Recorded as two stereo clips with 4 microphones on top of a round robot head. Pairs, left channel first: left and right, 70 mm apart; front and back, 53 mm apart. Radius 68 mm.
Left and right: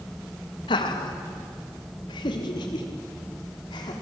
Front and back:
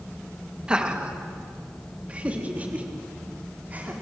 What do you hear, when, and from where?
0.7 s laughter: 110° left, 2 m; by 3.9 s 120° left, 4 m